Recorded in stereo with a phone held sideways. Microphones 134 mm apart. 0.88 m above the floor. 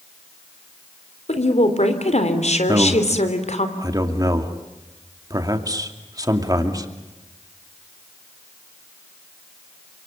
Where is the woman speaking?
65° left (ahead or behind), 3.5 m.